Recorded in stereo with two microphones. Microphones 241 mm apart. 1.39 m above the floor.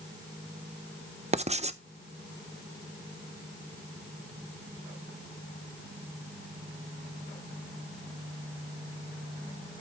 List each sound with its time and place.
1.3 s writing: 30° right (ahead or behind), 0.5 m